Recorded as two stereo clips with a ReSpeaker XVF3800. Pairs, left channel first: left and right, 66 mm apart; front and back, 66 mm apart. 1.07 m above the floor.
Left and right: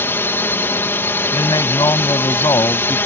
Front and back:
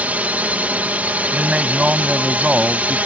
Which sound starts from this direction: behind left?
A drone, at 0.0 s.